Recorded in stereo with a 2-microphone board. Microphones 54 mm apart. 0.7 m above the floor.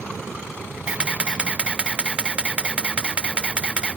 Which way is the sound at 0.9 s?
20° right (ahead or behind).